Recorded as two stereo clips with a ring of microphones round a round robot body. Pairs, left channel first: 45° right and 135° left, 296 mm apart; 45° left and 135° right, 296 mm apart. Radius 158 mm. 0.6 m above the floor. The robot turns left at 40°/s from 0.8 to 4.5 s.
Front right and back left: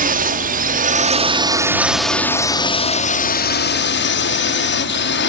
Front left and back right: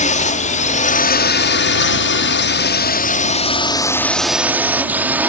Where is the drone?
95° left; by 5.3 s 55° right.